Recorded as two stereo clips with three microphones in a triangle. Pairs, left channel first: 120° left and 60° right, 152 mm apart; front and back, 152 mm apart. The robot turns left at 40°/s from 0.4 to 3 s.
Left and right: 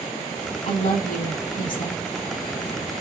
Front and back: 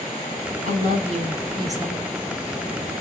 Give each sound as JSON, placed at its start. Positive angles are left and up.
{"t": 0.6, "sound": "a woman speaking", "azimuth_deg": 155, "distance_m": 3.5}